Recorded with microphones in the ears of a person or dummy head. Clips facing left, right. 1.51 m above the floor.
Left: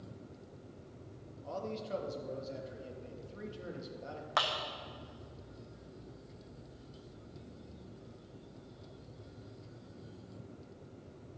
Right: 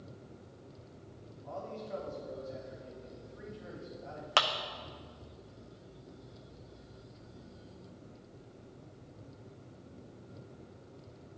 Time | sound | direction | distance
1.4 | a man speaking | 45° left (ahead or behind) | 2.0 m
4.4 | a clap | 40° right (ahead or behind) | 0.6 m